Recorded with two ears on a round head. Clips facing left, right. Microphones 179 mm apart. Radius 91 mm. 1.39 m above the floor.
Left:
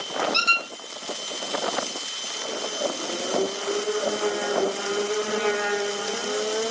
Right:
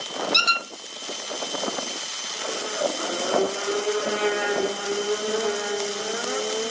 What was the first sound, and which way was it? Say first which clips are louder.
A squeak: even; 15° right (ahead or behind).